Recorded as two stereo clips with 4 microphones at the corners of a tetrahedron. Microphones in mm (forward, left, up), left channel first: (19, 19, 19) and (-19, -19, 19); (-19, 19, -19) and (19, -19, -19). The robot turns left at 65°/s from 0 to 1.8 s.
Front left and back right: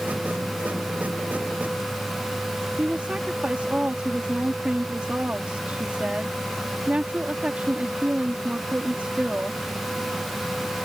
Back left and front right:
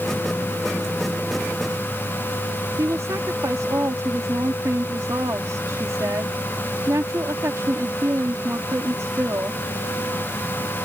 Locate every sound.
2.8 s a woman speaking: 70° right